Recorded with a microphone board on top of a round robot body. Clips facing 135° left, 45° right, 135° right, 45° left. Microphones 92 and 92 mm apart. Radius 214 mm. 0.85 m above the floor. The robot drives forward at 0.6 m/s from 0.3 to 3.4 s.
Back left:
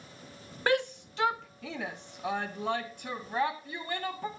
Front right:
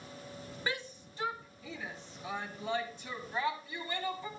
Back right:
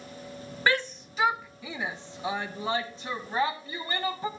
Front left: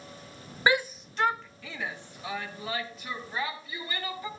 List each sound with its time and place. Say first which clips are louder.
0.7 s a shout: back left 12 dB, front left 1 dB; 115° left, 0.7 m; by 4.3 s 165° left, 2.0 m